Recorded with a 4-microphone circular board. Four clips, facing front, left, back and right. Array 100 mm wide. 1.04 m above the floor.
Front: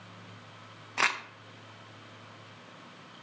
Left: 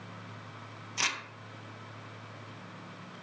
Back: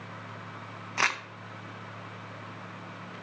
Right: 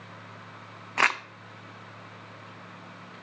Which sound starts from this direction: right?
Crumpling, at 1.0 s.